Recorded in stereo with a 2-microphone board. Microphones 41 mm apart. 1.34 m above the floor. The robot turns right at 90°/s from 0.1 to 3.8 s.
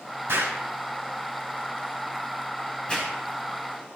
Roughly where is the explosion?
Right.